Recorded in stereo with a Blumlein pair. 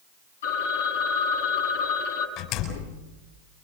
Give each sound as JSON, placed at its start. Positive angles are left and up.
{"t": 0.4, "sound": "a phone ringing", "azimuth_deg": 60, "distance_m": 7.0}
{"t": 2.4, "sound": "a door slam", "azimuth_deg": 40, "distance_m": 6.0}